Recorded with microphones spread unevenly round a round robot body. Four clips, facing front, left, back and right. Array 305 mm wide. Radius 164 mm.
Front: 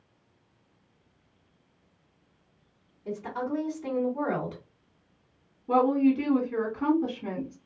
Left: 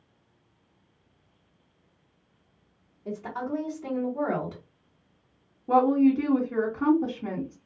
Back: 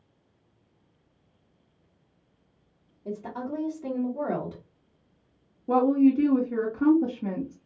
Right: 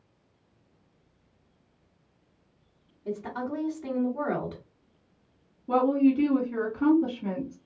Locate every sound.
3.0 s a woman speaking: straight behind, 1.5 m
5.7 s a woman speaking: 175° left, 1.1 m